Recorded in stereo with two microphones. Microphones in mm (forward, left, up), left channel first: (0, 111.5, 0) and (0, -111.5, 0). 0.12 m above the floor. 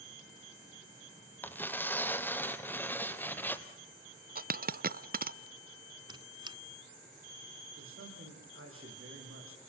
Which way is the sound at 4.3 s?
40° right (ahead or behind).